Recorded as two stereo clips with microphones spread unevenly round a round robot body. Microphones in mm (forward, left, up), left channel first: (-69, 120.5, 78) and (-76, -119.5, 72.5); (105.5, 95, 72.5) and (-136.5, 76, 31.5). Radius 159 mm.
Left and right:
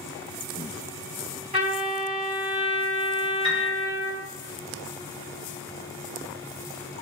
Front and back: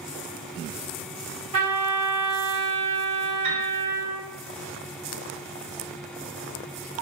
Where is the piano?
160° right, 2 m.